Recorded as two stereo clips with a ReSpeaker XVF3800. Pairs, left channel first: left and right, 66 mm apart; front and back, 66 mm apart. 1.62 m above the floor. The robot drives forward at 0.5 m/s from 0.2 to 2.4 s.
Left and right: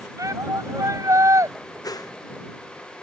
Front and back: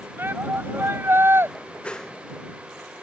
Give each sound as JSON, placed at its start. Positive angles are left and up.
{"t": 0.2, "sound": "a shout", "azimuth_deg": -125}
{"t": 1.8, "sound": "a whoosh", "azimuth_deg": 70}